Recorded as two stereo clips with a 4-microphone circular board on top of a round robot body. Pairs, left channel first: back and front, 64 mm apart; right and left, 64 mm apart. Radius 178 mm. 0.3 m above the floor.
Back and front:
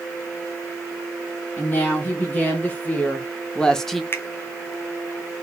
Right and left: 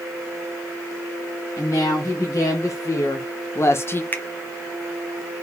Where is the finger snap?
140° right, 1.2 m.